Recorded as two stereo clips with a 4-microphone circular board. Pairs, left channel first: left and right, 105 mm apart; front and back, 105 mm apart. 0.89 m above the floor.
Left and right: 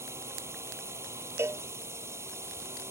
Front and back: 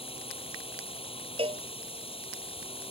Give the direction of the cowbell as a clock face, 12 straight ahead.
5 o'clock.